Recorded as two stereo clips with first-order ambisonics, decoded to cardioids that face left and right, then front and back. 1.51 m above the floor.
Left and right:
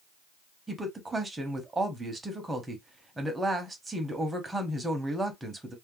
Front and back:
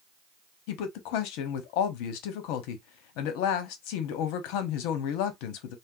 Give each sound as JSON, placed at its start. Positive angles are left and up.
{"t": 0.7, "sound": "a woman speaking", "azimuth_deg": -10, "distance_m": 0.9}